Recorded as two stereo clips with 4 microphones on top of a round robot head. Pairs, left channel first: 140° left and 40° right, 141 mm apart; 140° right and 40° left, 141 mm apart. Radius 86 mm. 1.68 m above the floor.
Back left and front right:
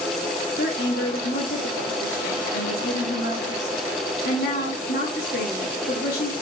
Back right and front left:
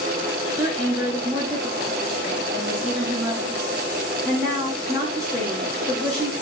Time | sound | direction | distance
0.6 | a woman speaking | 130° left | 8 m